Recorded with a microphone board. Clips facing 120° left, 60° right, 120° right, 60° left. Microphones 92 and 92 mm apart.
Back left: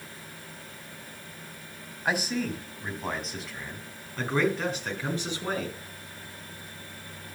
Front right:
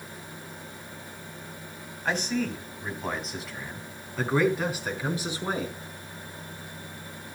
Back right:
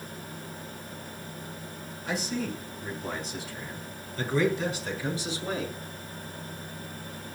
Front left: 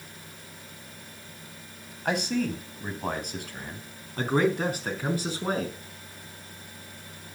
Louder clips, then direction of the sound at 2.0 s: Front right 1 dB, front left 5 dB; 40° left.